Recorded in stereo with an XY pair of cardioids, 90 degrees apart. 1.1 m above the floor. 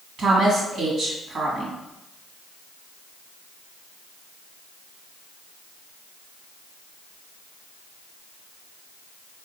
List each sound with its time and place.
0.2 s a woman speaking: 65° right, 1.2 m